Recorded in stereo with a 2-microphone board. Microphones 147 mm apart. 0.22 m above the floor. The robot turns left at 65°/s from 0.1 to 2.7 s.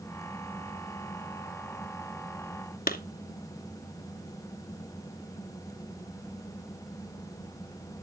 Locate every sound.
2.9 s a clap: 70° left (ahead or behind), 2.5 m